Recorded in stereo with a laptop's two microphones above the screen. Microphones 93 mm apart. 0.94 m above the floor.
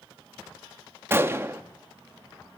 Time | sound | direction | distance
1.1 | a gunshot | 25° right (ahead or behind) | 0.9 m